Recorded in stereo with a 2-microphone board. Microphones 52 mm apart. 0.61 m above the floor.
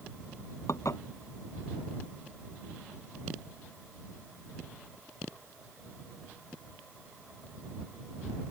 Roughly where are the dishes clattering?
Left.